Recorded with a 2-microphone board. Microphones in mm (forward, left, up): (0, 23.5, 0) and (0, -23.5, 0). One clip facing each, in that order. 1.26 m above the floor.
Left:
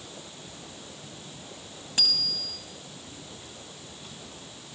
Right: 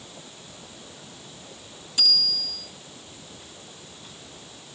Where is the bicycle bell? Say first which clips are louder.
Right 4 dB; 50° left (ahead or behind), 6 m.